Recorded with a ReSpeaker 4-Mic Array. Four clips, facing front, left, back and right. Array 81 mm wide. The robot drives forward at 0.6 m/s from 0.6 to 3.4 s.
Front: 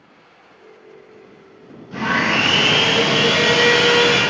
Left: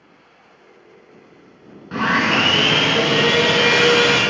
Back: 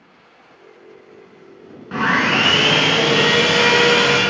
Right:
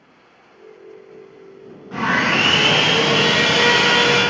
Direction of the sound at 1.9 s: 155° left.